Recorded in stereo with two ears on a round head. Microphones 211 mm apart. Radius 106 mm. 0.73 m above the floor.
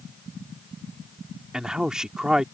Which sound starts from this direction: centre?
A man speaking, at 1.5 s.